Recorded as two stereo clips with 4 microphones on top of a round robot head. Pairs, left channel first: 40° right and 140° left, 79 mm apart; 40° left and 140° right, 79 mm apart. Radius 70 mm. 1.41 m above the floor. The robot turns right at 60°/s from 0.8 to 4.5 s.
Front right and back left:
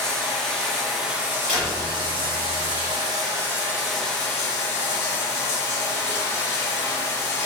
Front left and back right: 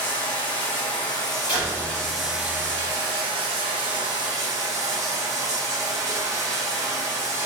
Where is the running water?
45° left, 2 m; by 7.5 s 90° right, 2 m.